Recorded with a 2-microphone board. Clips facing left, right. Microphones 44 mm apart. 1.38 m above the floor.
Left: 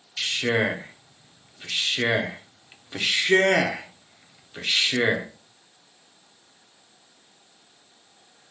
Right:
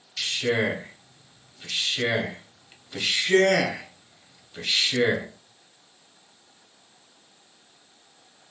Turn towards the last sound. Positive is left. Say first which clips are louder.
# left 1 dB
turn(degrees=20)  # may be behind; listen again after turning